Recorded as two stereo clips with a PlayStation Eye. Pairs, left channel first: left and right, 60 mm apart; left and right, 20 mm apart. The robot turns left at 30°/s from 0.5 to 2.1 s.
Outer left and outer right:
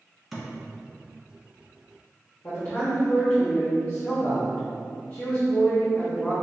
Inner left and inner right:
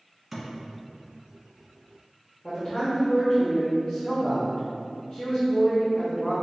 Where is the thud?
Centre (ahead or behind), 1.4 m.